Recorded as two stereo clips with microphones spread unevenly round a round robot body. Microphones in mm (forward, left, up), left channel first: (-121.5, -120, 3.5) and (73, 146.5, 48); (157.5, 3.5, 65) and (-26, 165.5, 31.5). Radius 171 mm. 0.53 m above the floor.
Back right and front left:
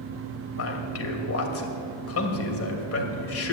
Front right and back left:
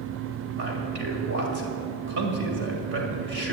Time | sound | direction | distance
0.5 | a man speaking | 175° right | 2 m